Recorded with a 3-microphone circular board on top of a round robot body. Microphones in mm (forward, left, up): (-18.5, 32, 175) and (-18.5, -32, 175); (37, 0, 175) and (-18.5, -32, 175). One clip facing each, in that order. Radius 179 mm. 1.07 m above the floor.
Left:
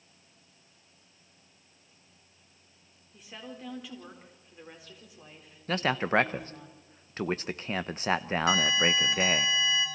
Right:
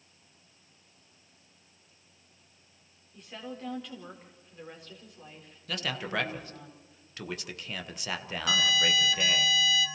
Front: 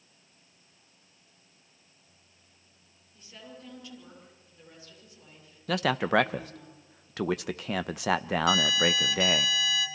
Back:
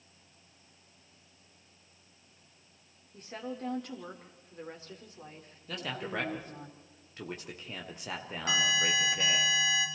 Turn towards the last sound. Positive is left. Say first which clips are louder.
# even, front 2 dB
turn(degrees=150)